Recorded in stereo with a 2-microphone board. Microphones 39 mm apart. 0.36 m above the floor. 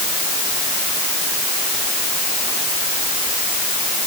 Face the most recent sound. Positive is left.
No sound to turn to.